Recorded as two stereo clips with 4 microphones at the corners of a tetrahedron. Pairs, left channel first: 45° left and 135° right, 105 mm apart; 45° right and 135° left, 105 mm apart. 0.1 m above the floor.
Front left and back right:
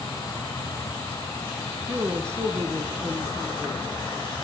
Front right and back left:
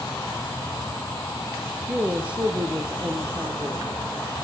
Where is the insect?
5° left, 3 m.